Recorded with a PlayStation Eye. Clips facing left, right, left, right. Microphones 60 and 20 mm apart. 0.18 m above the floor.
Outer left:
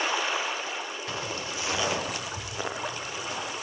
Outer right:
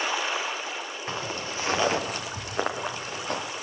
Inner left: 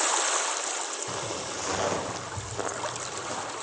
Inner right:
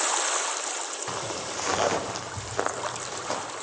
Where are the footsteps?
30° right (ahead or behind), 6.5 m; by 3.5 s 60° right (ahead or behind), 5 m.